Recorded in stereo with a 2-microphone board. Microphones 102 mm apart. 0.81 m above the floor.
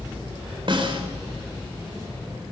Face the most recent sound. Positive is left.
turn(degrees=-55)  # may be behind; listen again after turning